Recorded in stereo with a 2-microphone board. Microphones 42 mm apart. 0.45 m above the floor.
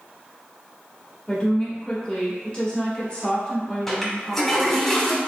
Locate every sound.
1.3 s a woman speaking: 25° left (ahead or behind), 1.4 m
3.9 s a toilet flushing: 10° left (ahead or behind), 1.2 m